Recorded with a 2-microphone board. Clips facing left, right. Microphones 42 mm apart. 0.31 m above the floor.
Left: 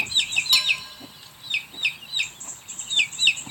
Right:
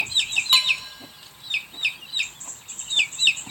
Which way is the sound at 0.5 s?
35° right (ahead or behind).